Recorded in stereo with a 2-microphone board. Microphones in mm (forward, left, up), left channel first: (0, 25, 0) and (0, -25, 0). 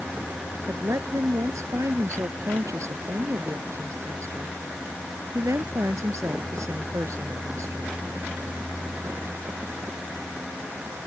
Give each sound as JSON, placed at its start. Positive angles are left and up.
{"t": 0.7, "sound": "a woman speaking", "side_deg": -85}